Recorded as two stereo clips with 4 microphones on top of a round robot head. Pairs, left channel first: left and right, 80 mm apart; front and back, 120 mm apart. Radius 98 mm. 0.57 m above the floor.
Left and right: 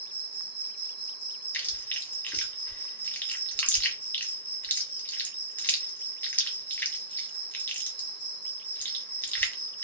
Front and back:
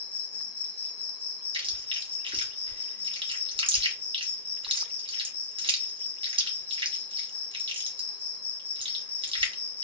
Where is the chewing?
155° left, 1.3 m.